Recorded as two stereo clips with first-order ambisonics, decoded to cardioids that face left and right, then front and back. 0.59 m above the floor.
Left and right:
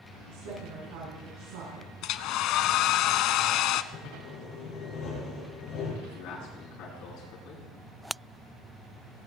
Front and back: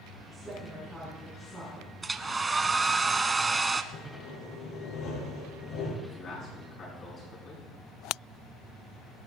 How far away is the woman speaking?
About 7 m.